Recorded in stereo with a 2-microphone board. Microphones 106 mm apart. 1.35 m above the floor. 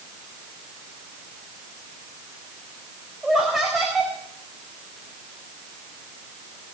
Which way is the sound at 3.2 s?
Centre (ahead or behind).